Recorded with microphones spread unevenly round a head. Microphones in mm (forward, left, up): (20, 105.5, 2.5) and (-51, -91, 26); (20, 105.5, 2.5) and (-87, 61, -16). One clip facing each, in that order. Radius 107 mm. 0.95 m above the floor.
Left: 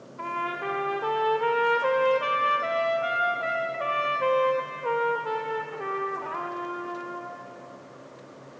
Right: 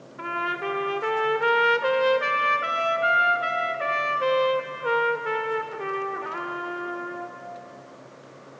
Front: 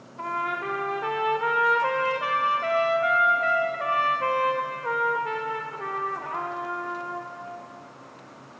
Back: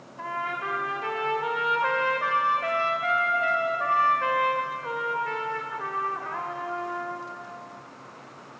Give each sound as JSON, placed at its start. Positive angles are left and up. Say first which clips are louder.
{"t": 0.2, "sound": "a trumpet", "louder": "right 2 dB, front 2 dB", "azimuth_deg": -45, "distance_m": 1.7}